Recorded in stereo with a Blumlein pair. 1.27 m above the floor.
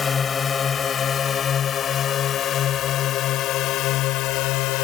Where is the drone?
20° left; by 4.8 s 40° left.